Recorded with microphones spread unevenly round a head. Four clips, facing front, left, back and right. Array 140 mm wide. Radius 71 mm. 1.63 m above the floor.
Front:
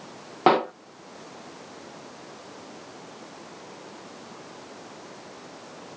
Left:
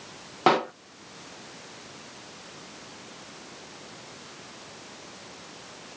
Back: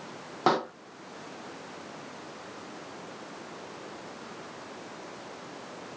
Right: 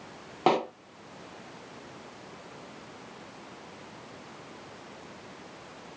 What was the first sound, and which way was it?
A pop, straight ahead.